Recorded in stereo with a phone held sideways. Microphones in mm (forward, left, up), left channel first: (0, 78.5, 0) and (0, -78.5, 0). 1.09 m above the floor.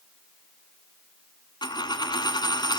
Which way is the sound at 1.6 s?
25° left (ahead or behind).